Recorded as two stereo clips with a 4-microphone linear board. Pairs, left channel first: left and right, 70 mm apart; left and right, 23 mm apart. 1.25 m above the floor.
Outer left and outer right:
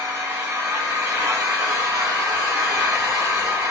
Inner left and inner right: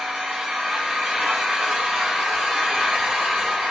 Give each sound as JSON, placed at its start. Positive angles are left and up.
{"t": 0.0, "sound": "an engine running", "side_deg": -70, "distance_m": 2.0}